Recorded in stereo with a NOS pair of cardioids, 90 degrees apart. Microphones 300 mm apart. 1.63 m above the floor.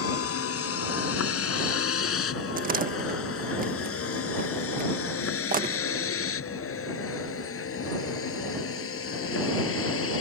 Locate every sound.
0.0 s a vehicle: 55° left; by 10.2 s 50° left
2.6 s a door slam: 30° right